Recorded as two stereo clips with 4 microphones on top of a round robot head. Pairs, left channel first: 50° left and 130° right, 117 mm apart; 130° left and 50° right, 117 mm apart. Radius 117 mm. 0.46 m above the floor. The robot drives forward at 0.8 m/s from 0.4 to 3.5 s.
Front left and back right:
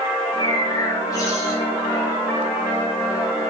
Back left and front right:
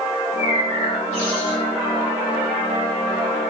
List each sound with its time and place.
0.1 s a bird: 100° left, 8.5 m; by 1.6 s 110° left, 8.5 m